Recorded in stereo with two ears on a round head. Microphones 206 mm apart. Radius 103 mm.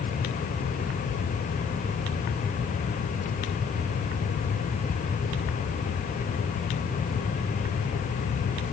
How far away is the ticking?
I don't hear ticking.